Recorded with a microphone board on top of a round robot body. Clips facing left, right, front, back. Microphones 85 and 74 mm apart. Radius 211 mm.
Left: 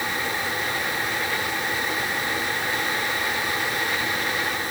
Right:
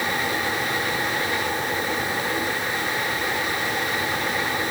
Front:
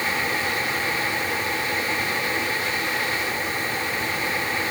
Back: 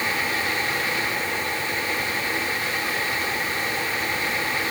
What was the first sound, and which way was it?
Only background noise.